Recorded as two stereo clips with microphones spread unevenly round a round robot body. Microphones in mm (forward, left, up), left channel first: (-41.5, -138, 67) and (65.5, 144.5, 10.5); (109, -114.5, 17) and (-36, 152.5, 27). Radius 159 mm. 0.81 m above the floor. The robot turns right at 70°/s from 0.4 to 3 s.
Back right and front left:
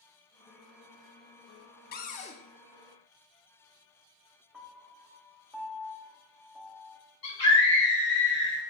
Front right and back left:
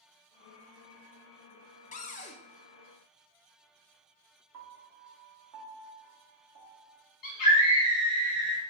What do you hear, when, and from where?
1.9 s a cupboard door: 65° right, 0.5 m; by 2.4 s 35° right, 0.5 m
4.5 s a piano: 160° left, 0.7 m
7.2 s a scream: 65° right, 1.5 m